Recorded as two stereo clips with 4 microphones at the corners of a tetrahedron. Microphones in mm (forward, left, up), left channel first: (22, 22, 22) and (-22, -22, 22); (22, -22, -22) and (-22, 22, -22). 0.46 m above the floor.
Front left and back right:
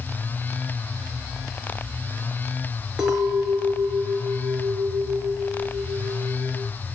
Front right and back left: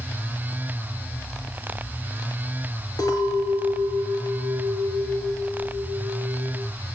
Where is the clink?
55° right, 5.5 m.